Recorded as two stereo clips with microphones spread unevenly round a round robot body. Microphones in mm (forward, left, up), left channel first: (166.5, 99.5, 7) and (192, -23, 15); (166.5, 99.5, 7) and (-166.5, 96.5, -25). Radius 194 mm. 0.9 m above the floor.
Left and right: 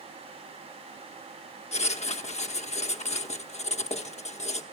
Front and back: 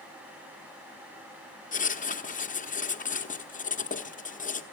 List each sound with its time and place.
1.7 s writing: 70° left, 1.1 m